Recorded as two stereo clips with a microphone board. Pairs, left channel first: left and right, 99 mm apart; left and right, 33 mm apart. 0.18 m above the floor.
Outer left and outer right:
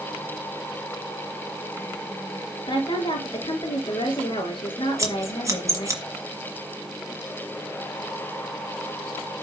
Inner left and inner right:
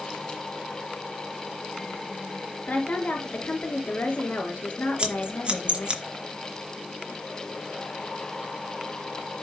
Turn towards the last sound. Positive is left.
turn(degrees=-35)  # may be behind; listen again after turning